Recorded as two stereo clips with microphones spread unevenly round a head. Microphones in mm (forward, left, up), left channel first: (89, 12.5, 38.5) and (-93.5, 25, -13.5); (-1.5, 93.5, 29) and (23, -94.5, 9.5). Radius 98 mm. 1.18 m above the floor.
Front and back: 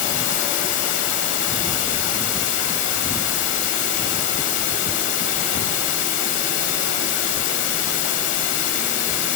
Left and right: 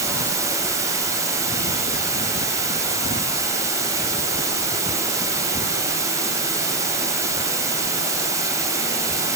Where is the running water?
5° right, 2.5 m.